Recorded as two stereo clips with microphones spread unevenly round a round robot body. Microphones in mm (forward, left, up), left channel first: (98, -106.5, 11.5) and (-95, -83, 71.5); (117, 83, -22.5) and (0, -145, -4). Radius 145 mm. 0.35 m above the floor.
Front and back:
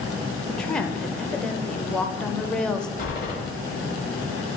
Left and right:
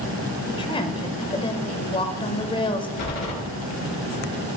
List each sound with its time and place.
0.5 s a woman speaking: 30° left, 1.1 m
3.0 s a door slam: 50° left, 5 m